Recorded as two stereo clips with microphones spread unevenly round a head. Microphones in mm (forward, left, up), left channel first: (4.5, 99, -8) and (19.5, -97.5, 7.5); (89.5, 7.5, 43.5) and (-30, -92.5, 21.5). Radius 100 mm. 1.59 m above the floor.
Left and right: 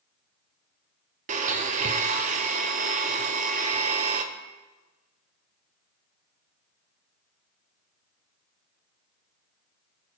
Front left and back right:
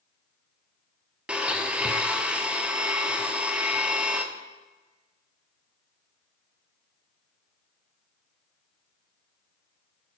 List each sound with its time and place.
1.3 s a blender: 50° right, 0.5 m